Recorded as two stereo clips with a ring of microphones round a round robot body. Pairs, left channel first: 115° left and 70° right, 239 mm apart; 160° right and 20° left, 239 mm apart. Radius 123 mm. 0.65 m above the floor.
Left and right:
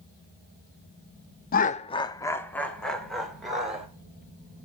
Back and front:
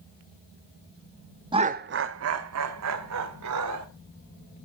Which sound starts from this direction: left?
Laughter, at 1.5 s.